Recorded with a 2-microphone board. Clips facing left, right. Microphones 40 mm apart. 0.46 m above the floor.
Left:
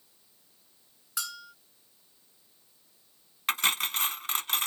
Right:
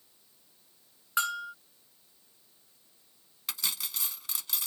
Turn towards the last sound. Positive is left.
turn(degrees=55)  # may be behind; listen again after turning